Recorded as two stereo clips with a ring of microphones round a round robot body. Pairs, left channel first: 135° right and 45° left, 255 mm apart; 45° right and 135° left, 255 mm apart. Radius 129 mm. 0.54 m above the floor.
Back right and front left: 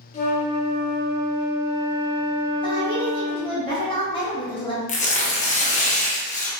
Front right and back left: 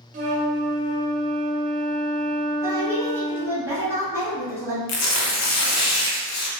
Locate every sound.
0.1 s a flute: straight behind, 0.6 m
2.6 s a woman speaking: 165° right, 1.1 m
4.9 s tearing paper: 70° right, 0.6 m